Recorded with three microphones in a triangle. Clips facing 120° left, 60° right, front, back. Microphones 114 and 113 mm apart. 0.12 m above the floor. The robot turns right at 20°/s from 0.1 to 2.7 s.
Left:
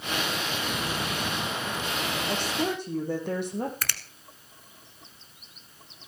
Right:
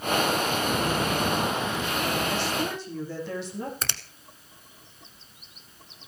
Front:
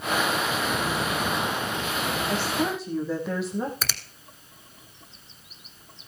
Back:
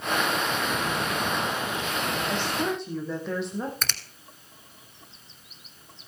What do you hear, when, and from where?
2.3 s a woman speaking: 80° left, 4.5 m; by 3.7 s 85° left, 4.5 m
3.8 s a finger snap: 70° right, 1.0 m